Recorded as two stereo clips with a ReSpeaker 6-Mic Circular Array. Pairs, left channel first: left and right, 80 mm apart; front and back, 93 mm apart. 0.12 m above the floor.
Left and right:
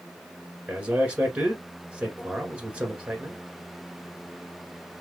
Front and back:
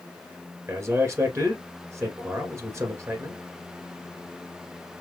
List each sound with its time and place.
0.7 s a man speaking: 150° right, 1.5 m